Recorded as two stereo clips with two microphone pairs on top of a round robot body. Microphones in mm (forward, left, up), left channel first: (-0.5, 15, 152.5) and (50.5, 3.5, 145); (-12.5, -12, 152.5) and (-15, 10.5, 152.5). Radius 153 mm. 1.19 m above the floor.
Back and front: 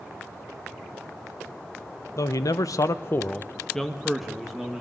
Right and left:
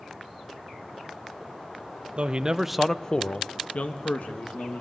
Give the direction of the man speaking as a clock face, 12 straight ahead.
7 o'clock.